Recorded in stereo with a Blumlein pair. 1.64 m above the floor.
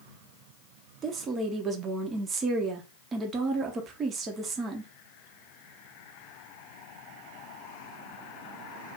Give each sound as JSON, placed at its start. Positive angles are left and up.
{"t": 1.0, "sound": "a woman speaking", "azimuth_deg": -25, "distance_m": 0.9}